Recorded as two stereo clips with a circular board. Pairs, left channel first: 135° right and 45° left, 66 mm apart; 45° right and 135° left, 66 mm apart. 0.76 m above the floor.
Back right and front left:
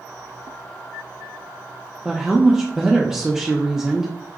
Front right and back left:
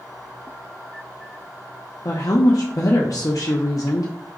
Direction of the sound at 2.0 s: 35° right.